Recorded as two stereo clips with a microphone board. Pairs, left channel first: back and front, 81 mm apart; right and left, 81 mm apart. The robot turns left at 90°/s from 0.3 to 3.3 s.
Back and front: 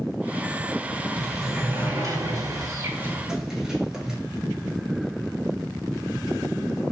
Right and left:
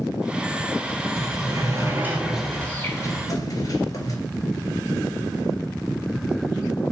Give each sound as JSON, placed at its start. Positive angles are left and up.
{"t": 1.2, "sound": "a sliding door", "azimuth_deg": 110, "distance_m": 0.6}